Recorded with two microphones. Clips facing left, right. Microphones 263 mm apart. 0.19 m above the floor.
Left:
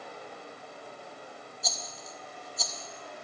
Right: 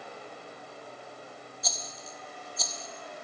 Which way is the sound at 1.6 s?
Centre (ahead or behind).